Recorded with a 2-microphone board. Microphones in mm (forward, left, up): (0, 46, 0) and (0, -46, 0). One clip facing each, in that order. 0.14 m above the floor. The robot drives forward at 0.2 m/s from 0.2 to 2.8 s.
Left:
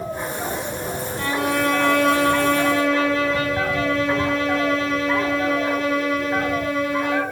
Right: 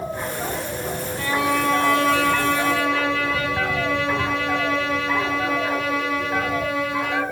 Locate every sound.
1.2 s a violin: 45° left (ahead or behind), 1.1 m; by 7.2 s 50° left (ahead or behind), 1.1 m